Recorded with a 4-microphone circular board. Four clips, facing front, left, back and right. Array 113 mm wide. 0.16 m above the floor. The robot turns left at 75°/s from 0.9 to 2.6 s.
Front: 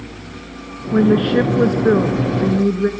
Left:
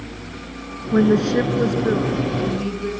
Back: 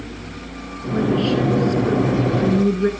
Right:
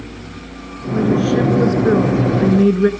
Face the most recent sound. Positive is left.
turn(degrees=-80)